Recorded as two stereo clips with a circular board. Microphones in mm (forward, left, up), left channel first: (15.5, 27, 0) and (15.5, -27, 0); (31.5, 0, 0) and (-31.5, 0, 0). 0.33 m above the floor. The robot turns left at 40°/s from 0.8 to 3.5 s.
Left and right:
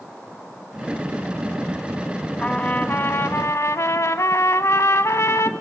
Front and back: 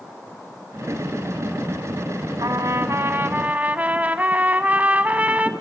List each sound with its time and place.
2.4 s a trumpet: 160° left, 0.6 m; by 5.5 s 115° left, 0.6 m